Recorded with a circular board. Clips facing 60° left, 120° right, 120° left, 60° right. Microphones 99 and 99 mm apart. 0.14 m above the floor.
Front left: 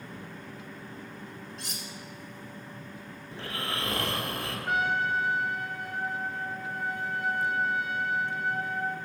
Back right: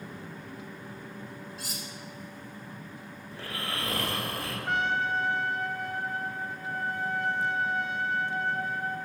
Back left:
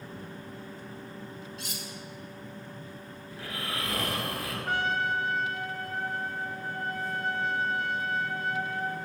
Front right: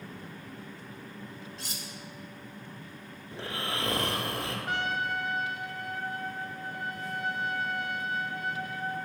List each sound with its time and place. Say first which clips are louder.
1.6 s cutlery clinking: back right 1 dB, back left 2 dB; 40° right, 1.0 m
3.3 s snoring: front left 1 dB, front right 2 dB; 5° right, 1.3 m
4.7 s a trumpet: front left 1 dB, back left 4 dB; 145° left, 0.6 m